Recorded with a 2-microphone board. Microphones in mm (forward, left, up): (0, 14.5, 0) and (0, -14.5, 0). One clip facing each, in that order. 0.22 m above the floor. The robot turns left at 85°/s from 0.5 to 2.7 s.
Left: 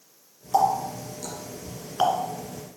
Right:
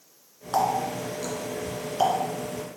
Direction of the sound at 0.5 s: 60° right (ahead or behind).